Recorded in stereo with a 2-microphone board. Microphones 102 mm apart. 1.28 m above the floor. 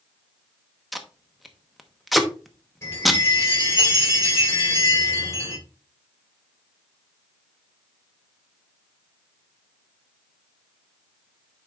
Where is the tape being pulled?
Centre (ahead or behind), 0.8 m.